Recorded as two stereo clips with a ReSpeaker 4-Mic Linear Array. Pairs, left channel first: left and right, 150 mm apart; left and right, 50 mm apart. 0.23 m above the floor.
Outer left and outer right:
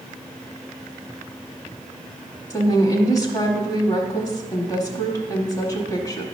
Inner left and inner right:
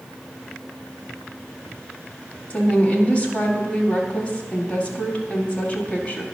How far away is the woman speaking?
About 1.0 m.